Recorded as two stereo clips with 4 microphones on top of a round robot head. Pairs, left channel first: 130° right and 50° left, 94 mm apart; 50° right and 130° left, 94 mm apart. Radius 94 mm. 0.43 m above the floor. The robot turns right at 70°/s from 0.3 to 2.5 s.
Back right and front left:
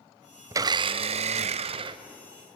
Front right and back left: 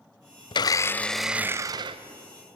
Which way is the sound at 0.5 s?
10° right.